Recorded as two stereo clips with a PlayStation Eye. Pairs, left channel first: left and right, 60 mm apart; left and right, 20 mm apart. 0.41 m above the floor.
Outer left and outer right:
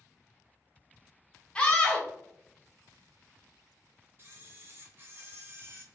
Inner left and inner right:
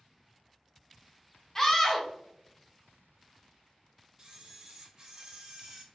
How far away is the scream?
About 0.8 m.